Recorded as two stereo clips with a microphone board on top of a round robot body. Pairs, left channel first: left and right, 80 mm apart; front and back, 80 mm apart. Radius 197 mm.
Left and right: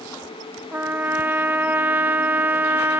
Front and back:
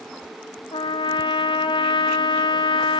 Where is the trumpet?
20° right, 0.9 m.